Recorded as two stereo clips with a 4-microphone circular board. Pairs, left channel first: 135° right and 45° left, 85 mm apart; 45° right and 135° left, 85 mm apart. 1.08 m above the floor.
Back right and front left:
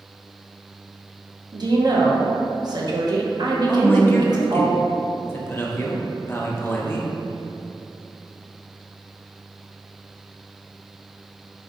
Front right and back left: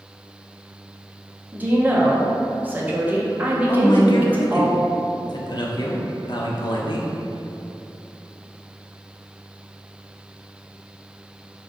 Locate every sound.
1.5 s a woman speaking: 70° left, 0.7 m
3.7 s a man speaking: 70° right, 0.6 m